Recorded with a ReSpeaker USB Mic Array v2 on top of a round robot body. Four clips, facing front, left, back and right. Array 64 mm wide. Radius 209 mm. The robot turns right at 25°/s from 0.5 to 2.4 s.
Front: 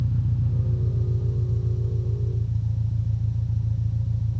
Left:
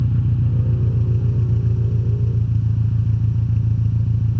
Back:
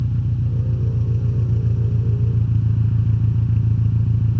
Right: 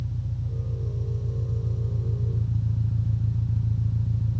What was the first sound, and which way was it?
An engine running, 110° left.